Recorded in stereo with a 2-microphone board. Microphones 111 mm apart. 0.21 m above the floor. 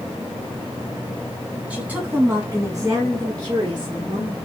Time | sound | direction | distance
1.7 | a woman speaking | 10° right (ahead or behind) | 2 m